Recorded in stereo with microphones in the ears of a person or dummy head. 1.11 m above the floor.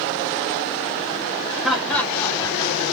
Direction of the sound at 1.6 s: 10° right (ahead or behind).